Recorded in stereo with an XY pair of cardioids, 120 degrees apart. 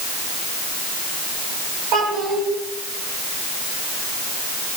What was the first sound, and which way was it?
A child speaking, 70° right.